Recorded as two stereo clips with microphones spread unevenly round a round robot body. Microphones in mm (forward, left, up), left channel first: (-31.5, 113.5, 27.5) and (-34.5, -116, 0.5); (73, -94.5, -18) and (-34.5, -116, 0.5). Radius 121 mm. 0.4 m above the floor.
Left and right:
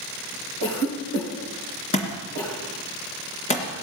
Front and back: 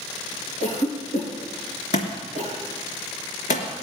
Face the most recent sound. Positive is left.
turn(degrees=25)